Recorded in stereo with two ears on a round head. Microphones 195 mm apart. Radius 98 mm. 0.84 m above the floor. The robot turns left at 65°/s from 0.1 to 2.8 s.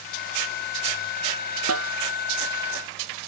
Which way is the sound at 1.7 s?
75° right (ahead or behind).